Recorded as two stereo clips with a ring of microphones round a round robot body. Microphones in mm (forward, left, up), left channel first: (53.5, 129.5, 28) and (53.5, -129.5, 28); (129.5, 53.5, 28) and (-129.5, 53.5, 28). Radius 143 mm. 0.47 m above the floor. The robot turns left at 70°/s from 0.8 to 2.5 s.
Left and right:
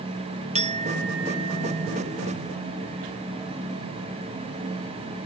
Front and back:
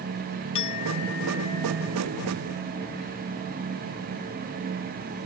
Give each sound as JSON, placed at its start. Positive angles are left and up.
{"t": 0.6, "sound": "a clink", "azimuth_deg": -25}